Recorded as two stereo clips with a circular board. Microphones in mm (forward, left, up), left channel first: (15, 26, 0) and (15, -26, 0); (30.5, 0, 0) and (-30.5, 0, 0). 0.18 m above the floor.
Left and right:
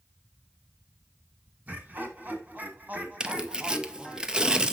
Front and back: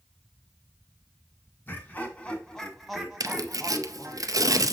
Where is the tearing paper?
165° right, 0.6 m.